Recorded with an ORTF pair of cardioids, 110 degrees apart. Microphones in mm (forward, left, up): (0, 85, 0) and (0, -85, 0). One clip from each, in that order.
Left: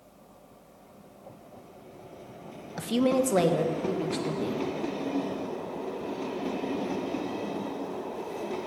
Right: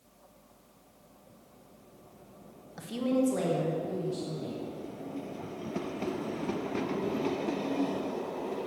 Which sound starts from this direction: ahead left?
A woman speaking, at 2.8 s.